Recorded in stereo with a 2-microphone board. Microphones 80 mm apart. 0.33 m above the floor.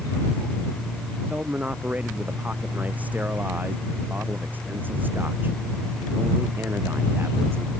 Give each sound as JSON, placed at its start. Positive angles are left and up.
{"t": 1.3, "sound": "a man speaking", "side_deg": -20}